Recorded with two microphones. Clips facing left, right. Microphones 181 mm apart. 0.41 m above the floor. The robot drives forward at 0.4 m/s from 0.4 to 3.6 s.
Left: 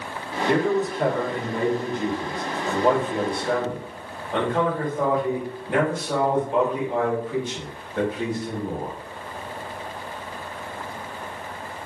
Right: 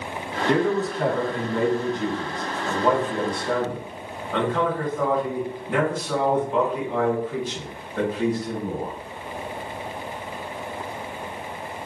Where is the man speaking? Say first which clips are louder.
Even; 15° left (ahead or behind), 1.7 m; by 8.9 s 25° left (ahead or behind), 1.2 m.